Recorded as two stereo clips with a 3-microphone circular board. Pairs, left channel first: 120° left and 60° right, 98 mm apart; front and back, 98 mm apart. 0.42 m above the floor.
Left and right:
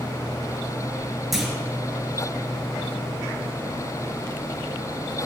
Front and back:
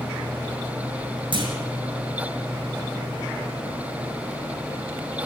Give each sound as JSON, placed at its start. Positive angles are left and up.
{"t": 1.3, "sound": "a clunk", "azimuth_deg": -150, "distance_m": 3.0}